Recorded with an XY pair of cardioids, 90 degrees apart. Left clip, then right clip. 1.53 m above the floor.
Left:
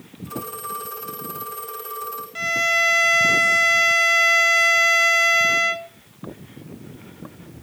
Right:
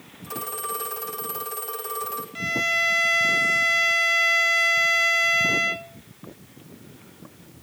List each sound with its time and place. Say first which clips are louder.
0.2 s a phone ringing: even; 60° right, 5.5 m
2.4 s a violin: left 4 dB; 35° left, 0.9 m